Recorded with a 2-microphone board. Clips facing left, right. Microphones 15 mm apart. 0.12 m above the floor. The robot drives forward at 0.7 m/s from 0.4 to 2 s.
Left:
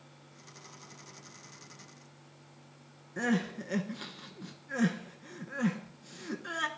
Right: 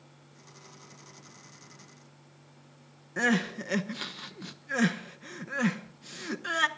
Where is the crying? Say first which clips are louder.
Right 4 dB; 35° right (ahead or behind), 0.6 m.